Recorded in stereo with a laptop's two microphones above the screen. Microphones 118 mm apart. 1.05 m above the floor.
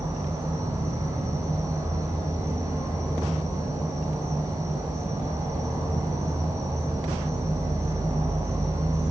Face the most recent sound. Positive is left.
turn(degrees=-25)  # may be behind; listen again after turning